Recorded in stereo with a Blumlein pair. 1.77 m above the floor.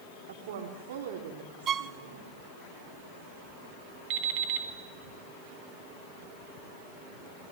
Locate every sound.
0.3 s a woman speaking: 55° right, 4.5 m
1.7 s a violin: 25° right, 0.8 m
4.1 s an alarm clock: 40° right, 5 m